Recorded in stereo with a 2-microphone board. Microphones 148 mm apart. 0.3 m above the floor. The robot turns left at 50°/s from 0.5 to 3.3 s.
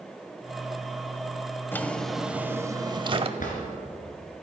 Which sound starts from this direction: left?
A drawer, at 3.4 s.